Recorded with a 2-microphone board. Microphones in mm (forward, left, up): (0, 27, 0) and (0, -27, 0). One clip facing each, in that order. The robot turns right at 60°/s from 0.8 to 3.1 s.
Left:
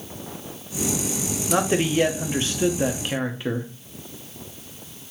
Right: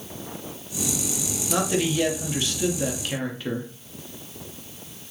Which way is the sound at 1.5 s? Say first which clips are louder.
Left 3 dB; 50° left.